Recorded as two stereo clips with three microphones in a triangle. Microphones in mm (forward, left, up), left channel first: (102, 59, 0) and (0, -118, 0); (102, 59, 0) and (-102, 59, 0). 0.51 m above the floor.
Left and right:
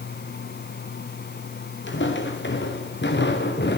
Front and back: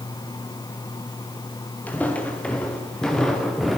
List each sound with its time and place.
1.9 s footsteps: 80° left, 4 m; by 3.8 s 90° left, 3.5 m